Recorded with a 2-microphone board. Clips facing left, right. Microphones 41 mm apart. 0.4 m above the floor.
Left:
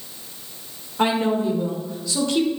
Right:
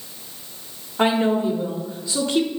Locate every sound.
1.0 s a woman speaking: 15° right (ahead or behind), 1.0 m